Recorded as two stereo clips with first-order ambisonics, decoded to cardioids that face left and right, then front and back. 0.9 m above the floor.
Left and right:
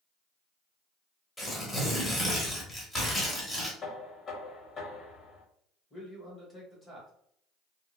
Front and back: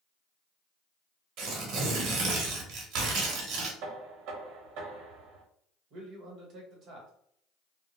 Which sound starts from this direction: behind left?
Knocking, at 3.8 s.